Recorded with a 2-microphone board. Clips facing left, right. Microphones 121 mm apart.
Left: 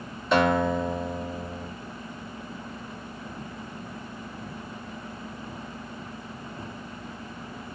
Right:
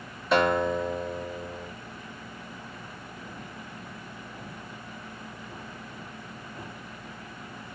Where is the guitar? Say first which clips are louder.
Left 1 dB; centre (ahead or behind), 1.5 m.